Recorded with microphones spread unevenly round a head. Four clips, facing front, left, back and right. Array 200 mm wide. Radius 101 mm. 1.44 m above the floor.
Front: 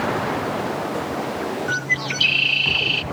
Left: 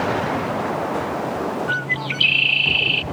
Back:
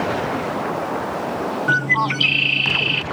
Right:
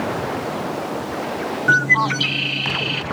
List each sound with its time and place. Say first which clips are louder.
1.7 s a bird: right 7 dB, back 6 dB; 130° right